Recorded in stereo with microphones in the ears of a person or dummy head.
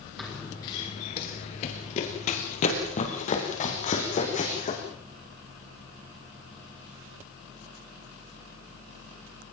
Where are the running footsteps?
Centre (ahead or behind), 1.8 m; by 4.8 s 40° left (ahead or behind), 6.5 m.